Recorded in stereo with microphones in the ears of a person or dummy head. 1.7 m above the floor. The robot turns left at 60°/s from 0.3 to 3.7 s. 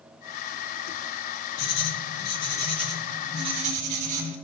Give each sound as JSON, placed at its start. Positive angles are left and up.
{"t": 1.6, "sound": "writing", "azimuth_deg": 75, "distance_m": 2.5}